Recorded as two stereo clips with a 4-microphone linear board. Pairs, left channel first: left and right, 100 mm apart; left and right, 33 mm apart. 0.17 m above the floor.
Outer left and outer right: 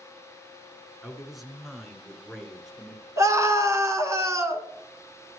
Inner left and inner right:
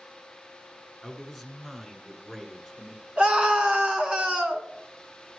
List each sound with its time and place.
1.0 s a man speaking: centre (ahead or behind), 1.8 m
3.2 s a scream: 30° right (ahead or behind), 1.5 m